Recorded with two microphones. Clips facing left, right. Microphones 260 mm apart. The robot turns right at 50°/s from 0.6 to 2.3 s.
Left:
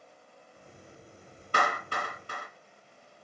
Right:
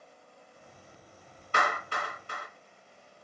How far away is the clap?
About 1.1 m.